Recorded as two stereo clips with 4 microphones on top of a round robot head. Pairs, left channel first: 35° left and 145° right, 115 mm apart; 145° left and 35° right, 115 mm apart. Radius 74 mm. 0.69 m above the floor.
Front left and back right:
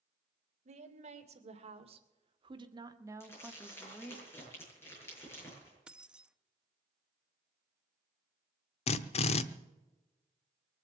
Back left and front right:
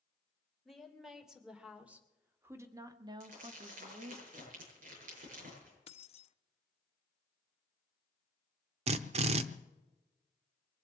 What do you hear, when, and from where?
0.7 s a woman speaking: 125° right, 3 m; by 4.2 s 35° right, 1.5 m
3.2 s crumpling: 35° right, 8 m
5.9 s keys jangling: 135° left, 0.8 m
8.9 s a drill: straight ahead, 0.8 m